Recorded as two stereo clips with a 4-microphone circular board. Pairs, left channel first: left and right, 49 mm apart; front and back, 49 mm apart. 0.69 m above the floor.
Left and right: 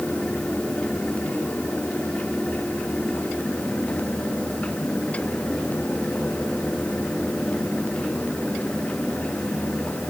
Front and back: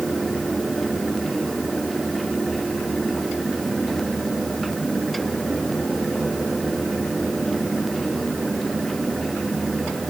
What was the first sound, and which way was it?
Only background noise.